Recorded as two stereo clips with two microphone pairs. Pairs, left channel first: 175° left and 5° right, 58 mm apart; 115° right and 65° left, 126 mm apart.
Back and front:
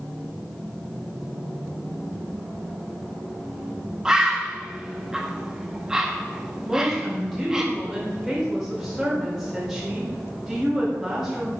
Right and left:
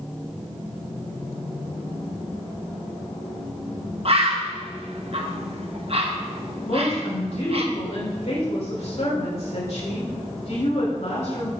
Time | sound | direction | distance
4.0 | a bird | 70° left | 1.3 m
6.7 | a woman speaking | 95° right | 3.5 m